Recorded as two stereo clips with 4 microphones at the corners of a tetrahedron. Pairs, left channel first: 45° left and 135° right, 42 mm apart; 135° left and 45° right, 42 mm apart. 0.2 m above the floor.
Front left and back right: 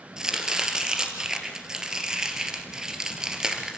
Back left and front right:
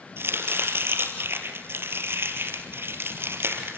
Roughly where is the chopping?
Ahead right.